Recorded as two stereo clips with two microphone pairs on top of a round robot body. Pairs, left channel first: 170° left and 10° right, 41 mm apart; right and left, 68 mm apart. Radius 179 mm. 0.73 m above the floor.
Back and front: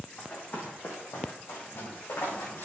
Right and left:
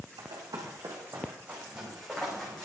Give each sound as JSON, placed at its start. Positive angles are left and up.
{"t": 0.2, "sound": "running footsteps", "azimuth_deg": 115, "distance_m": 2.5}